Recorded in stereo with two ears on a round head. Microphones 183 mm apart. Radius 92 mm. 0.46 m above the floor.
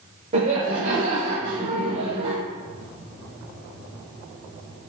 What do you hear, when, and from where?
0.3 s laughter: 35° right (ahead or behind), 1.9 m